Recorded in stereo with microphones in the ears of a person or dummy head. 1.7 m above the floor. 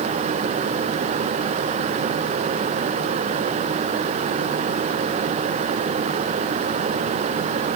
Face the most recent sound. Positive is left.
No sound to turn to.